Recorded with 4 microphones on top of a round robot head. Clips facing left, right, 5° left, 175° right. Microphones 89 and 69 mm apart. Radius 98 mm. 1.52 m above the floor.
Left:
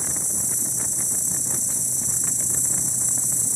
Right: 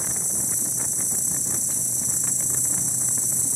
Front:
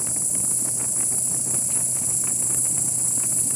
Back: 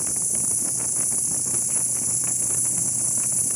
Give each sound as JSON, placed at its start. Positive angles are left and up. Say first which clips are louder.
{"t": 0.0, "sound": "an insect", "louder": "even, front 1 dB", "azimuth_deg": -95, "distance_m": 4.0}